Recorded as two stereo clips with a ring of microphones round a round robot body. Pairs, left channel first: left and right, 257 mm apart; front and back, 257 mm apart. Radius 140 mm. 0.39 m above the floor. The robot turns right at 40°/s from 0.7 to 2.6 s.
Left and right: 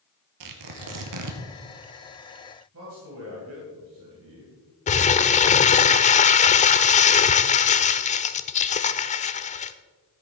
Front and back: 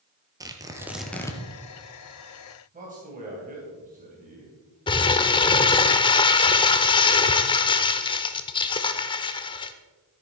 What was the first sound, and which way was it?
Tearing paper, 105° right.